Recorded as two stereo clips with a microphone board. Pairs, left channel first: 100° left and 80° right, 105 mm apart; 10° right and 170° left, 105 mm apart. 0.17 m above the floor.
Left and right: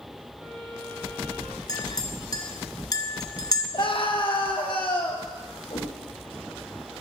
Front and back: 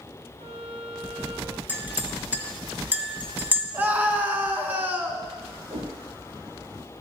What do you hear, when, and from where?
0.4 s a violin: 175° right, 3.5 m
1.7 s a clink: 105° left, 1.2 m
3.7 s a scream: 100° left, 1.8 m
5.7 s a whoosh: 140° left, 3.5 m